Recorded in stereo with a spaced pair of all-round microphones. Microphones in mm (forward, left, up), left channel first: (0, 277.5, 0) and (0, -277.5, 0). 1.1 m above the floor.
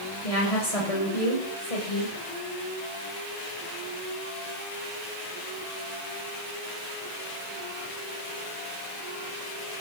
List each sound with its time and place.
0.2 s a woman speaking: 80° left, 6.5 m; by 2.1 s 75° left (ahead or behind), 6 m